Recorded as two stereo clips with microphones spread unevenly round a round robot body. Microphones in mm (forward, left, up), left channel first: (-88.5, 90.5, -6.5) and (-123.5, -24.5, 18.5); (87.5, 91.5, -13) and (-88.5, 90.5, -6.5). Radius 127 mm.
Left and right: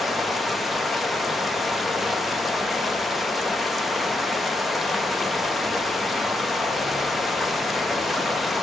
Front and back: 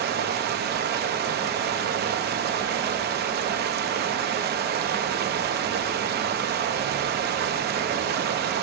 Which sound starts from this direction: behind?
Running water, at 0.0 s.